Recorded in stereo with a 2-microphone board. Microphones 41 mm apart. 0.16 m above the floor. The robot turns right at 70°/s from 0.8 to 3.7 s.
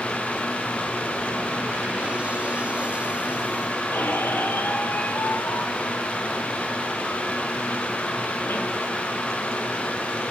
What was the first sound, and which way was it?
A squeak, 65° left (ahead or behind).